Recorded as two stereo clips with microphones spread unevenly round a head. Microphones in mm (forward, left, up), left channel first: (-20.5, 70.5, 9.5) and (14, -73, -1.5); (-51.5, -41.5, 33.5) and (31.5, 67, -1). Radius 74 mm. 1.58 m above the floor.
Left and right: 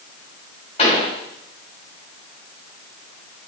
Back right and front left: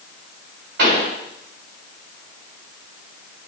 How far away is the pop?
About 6 m.